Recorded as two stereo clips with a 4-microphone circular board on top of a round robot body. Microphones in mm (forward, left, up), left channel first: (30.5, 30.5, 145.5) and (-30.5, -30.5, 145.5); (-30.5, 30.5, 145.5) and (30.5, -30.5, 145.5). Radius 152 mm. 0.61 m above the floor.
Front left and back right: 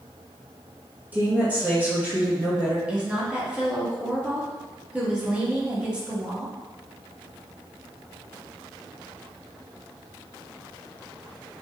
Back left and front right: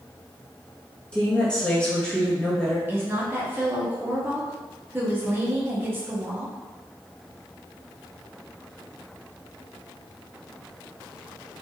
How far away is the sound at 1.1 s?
About 1.2 m.